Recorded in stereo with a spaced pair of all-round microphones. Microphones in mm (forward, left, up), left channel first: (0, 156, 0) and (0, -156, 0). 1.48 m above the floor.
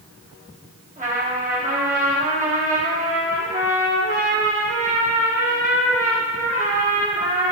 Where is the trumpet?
25° right (ahead or behind), 1.7 m.